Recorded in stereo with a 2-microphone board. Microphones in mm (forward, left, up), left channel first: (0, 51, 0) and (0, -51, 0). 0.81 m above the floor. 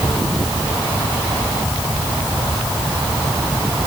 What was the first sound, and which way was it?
Only background noise.